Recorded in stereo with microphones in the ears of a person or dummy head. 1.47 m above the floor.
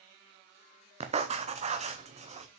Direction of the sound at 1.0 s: 30° right (ahead or behind).